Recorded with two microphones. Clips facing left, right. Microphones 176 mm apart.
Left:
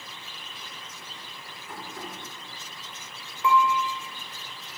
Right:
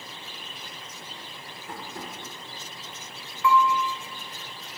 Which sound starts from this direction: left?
Dishes clattering, at 3.4 s.